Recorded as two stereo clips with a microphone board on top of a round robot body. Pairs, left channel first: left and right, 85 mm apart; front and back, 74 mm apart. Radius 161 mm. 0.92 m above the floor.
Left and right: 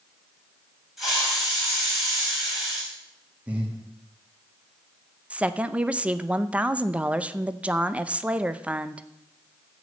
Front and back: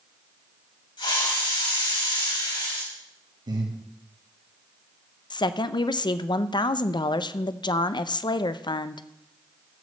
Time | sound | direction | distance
1.0 | a hiss | straight ahead | 5 m
3.5 | breathing | 165° right | 2.5 m
5.3 | a woman speaking | 15° right | 0.7 m